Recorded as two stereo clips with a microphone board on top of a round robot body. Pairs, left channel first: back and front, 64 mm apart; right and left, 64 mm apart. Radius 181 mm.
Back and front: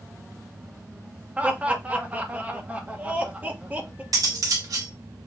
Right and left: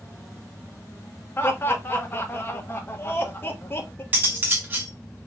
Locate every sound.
1.4 s laughter: 55° right, 1.1 m
4.1 s cutlery clinking: 30° left, 1.0 m